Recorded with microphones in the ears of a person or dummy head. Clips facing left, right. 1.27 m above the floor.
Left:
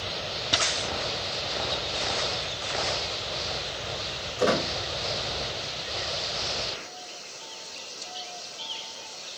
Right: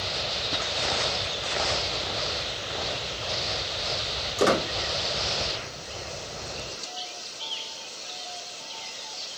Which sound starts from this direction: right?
A squeak, at 4.4 s.